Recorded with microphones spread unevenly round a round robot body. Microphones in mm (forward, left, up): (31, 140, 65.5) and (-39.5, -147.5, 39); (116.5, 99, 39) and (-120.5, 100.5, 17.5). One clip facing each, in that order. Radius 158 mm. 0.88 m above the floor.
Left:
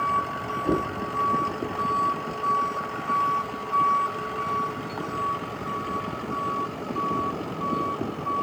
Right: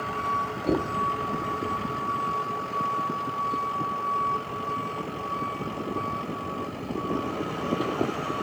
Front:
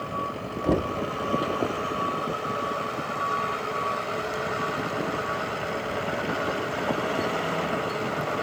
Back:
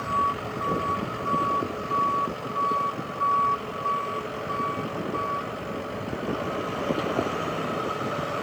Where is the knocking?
10° right, 1.0 m.